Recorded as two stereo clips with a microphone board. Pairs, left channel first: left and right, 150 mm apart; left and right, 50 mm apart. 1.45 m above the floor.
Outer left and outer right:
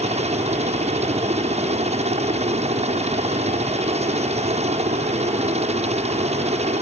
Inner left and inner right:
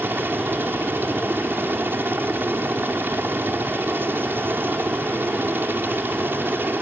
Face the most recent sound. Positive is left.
turn(degrees=-45)  # may be behind; listen again after turning